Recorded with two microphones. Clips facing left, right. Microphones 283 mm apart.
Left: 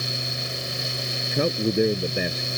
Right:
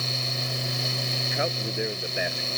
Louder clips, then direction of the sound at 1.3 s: Left 10 dB; 45° left (ahead or behind).